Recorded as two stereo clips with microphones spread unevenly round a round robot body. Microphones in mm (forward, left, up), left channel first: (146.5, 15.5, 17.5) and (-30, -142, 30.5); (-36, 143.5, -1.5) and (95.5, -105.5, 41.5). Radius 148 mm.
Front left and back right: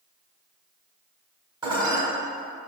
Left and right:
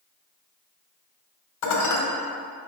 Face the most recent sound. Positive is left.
turn(degrees=145)